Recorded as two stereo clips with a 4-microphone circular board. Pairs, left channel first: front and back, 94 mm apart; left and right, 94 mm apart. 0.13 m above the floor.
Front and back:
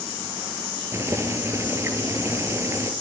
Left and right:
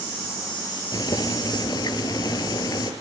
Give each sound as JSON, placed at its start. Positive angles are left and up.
{"t": 0.9, "sound": "boiling", "azimuth_deg": 125, "distance_m": 2.5}